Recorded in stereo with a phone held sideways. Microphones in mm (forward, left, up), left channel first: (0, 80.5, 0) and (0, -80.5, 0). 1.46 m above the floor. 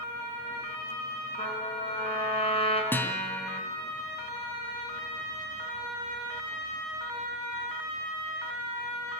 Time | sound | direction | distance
1.4 | a trumpet | 35° left (ahead or behind) | 5 m
2.9 | a guitar | 15° left (ahead or behind) | 3 m